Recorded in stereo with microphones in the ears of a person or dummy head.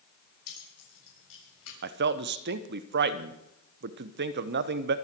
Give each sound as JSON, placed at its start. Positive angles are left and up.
{"t": 0.5, "sound": "keys jangling", "side_deg": 75, "distance_m": 6.0}
{"t": 1.8, "sound": "a man speaking", "side_deg": -50, "distance_m": 1.0}